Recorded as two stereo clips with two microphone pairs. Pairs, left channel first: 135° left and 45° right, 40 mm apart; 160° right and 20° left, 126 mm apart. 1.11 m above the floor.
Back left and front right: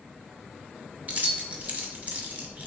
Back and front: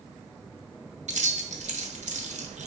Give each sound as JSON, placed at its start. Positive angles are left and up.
{"t": 1.1, "sound": "keys jangling", "azimuth_deg": 10, "distance_m": 0.6}